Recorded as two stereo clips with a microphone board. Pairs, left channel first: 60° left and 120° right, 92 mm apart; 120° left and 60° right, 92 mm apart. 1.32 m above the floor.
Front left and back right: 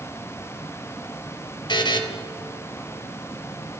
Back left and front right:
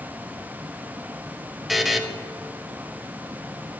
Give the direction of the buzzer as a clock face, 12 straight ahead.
11 o'clock.